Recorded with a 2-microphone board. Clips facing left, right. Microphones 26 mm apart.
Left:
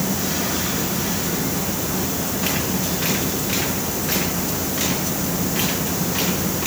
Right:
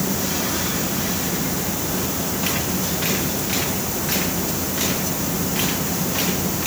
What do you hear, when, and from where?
Only background noise.